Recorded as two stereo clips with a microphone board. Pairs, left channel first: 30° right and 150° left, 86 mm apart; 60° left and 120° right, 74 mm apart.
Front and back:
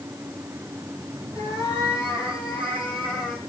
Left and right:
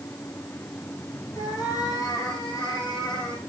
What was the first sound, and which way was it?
A cat meowing, 30° left.